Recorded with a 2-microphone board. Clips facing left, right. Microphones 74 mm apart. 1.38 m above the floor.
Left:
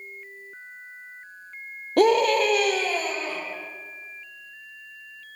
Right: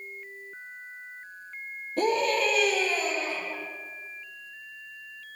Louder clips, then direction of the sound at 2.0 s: Left 7 dB; 75° left (ahead or behind).